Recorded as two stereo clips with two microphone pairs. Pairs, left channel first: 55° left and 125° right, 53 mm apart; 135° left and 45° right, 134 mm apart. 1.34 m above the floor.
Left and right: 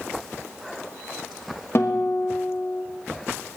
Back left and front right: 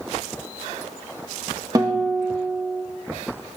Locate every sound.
1.8 s a guitar: 20° left, 1.2 m